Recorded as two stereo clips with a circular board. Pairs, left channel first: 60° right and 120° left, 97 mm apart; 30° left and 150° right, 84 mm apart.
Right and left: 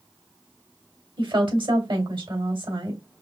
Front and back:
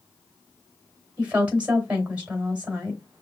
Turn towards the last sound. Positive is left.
turn(degrees=140)